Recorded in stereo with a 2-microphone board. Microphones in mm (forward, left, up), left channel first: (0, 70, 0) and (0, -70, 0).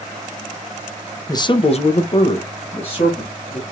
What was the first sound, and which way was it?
A man speaking, 25° left (ahead or behind).